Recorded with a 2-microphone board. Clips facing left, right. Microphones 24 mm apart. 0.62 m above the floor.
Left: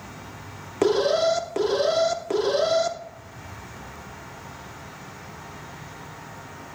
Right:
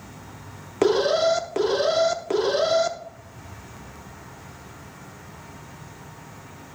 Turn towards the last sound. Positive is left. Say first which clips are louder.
# right 1 dB
turn(degrees=-5)  # may be behind; listen again after turning